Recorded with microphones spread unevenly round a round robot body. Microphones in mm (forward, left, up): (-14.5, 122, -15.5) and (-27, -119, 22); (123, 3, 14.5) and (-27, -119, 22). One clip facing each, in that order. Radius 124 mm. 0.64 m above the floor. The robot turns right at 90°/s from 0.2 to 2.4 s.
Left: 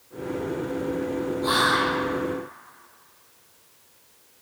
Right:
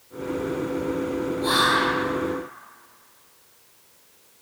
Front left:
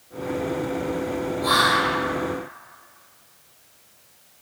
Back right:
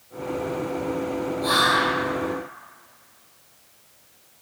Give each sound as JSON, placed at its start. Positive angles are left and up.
{"t": 1.4, "sound": "whispering", "azimuth_deg": -55, "distance_m": 0.7}